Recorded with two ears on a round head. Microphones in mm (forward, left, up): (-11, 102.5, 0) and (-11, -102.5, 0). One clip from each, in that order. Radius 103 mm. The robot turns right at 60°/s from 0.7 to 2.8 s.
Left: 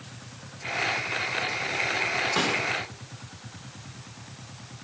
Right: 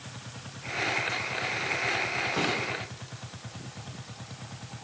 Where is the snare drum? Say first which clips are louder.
Left 3 dB; 70° left (ahead or behind), 5.5 m; by 2.6 s 55° left (ahead or behind), 5.5 m.